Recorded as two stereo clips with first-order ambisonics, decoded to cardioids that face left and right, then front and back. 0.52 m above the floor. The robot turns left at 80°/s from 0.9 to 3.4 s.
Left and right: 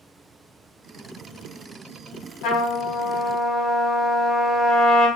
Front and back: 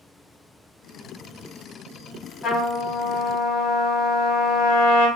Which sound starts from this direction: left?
A trumpet, at 2.4 s.